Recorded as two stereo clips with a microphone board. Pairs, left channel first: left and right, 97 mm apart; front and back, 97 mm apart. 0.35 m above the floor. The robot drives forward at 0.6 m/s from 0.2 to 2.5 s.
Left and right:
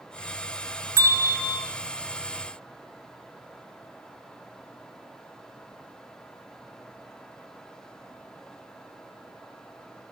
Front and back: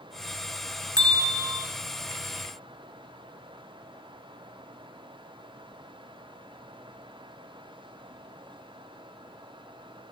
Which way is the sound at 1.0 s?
140° left.